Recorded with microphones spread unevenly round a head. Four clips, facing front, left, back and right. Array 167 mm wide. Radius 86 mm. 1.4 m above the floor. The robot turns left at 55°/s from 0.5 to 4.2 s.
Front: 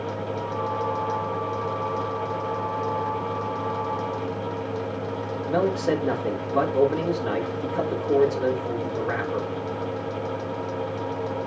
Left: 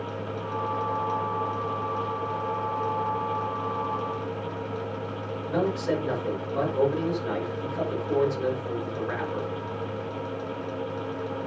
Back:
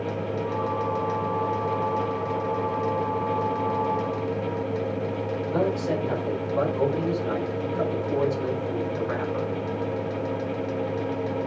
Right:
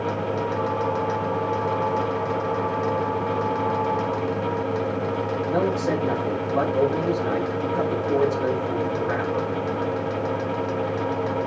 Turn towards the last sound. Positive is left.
turn(degrees=-20)